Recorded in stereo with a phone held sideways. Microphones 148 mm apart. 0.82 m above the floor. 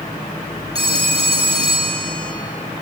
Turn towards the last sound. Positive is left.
turn(degrees=-40)  # may be behind; listen again after turning